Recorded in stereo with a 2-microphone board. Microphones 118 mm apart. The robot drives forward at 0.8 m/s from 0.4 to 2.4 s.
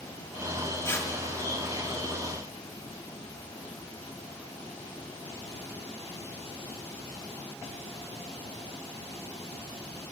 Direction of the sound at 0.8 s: 25° left (ahead or behind).